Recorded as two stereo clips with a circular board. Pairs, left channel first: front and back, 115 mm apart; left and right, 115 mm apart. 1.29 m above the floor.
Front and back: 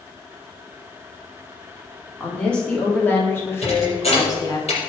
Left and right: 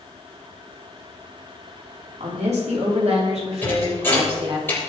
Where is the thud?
20° left, 6 m.